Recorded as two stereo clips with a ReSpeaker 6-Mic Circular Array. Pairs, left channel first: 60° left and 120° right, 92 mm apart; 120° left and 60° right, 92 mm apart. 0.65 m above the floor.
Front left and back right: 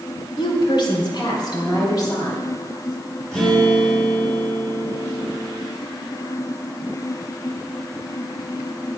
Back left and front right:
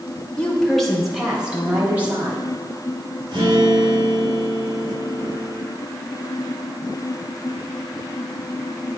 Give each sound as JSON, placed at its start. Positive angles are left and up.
{"t": 0.4, "sound": "a woman speaking", "azimuth_deg": 45, "distance_m": 2.5}
{"t": 3.3, "sound": "a guitar", "azimuth_deg": -20, "distance_m": 5.0}